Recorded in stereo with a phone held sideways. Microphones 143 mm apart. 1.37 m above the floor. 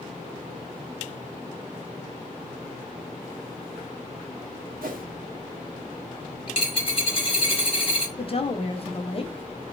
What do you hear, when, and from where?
4.8 s a whoosh: 75° right (ahead or behind), 0.6 m
6.5 s a dropped coin: 40° left (ahead or behind), 0.9 m
8.2 s a woman speaking: 40° left (ahead or behind), 0.6 m